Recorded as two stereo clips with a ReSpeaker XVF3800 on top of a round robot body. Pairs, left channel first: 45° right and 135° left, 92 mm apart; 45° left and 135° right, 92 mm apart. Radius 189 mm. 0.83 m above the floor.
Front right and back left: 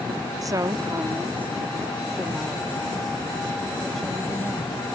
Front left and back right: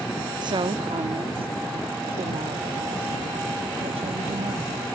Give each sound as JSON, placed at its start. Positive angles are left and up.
{"t": 0.4, "sound": "a woman speaking", "azimuth_deg": -175}